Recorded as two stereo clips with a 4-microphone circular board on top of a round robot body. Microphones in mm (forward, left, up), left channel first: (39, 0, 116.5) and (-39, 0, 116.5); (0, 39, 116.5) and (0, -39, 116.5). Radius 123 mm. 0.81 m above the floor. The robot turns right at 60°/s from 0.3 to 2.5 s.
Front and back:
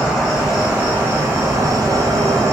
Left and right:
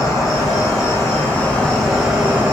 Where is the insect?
80° left, 1.8 m; by 2.5 s 150° right, 1.8 m.